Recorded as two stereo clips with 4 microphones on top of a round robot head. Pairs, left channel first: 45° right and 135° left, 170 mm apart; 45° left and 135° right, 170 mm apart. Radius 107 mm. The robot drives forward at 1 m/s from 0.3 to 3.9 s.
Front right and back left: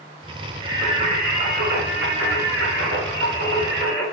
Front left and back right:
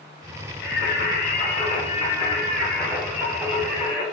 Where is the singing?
70° left, 2.5 m; by 4.0 s 145° left, 3.5 m.